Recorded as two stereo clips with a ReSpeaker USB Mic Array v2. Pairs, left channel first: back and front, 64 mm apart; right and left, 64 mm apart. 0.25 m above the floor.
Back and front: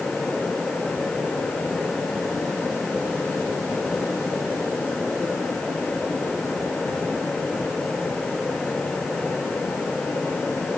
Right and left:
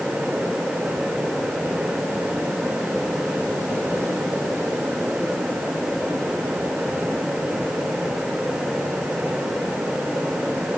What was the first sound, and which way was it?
Only background noise.